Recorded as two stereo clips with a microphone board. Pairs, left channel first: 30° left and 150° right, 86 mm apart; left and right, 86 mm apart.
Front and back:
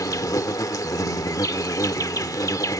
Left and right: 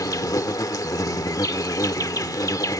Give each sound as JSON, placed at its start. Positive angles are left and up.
{"t": 0.0, "sound": "an insect", "azimuth_deg": 60}